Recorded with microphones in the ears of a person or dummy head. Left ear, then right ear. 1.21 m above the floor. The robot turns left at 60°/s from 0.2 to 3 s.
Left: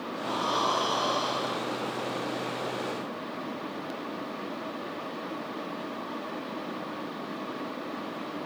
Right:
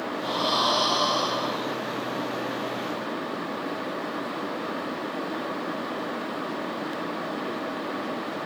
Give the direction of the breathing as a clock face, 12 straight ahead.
2 o'clock.